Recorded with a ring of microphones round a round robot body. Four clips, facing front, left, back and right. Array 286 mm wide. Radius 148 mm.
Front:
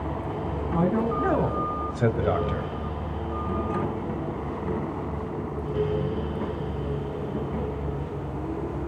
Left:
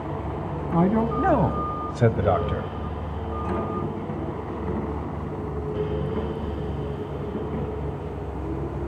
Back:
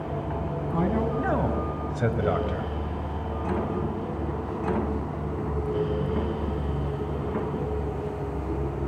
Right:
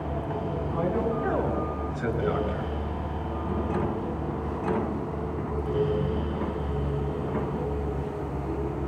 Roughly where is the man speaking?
Left.